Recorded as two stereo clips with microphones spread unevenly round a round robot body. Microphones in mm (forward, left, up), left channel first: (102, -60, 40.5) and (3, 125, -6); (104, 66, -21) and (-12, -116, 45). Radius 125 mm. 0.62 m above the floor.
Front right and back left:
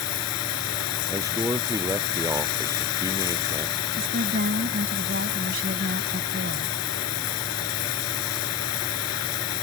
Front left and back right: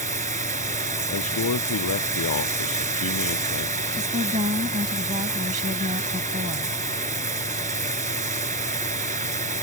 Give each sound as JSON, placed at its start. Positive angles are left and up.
{"t": 0.0, "sound": "running water", "azimuth_deg": -70}
{"t": 1.1, "sound": "a man speaking", "azimuth_deg": 45}
{"t": 3.9, "sound": "a woman speaking", "azimuth_deg": 170}